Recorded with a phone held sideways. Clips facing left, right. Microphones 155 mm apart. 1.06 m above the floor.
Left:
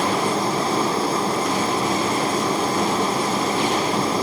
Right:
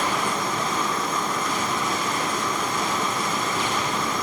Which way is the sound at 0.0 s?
35° left (ahead or behind).